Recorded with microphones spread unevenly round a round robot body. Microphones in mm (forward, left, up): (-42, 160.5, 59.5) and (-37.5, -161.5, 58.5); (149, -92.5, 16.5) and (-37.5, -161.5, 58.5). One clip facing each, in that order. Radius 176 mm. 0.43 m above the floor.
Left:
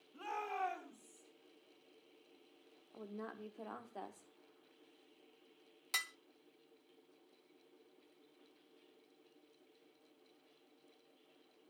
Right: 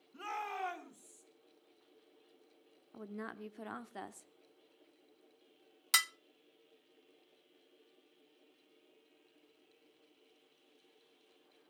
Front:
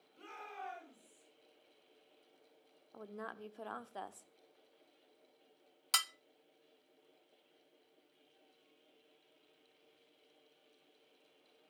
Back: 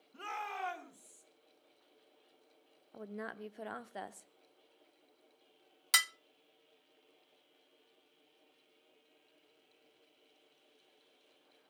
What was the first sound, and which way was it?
A shout, 140° right.